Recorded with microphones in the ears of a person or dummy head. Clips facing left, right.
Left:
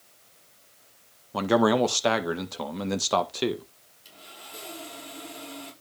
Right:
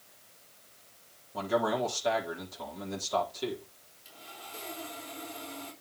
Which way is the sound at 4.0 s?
15° left (ahead or behind).